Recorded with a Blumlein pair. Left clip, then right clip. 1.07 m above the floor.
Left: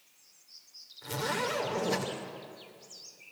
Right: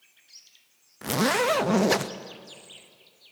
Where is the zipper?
40° right, 0.8 m.